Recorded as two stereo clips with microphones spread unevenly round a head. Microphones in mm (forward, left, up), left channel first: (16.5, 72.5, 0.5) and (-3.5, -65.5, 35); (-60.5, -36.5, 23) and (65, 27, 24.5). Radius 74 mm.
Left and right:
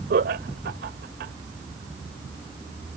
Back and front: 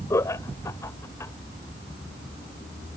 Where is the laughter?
80° right.